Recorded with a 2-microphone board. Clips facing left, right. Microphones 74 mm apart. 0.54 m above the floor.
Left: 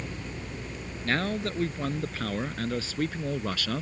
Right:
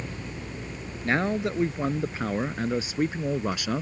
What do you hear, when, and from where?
1.0 s a man speaking: 15° right (ahead or behind)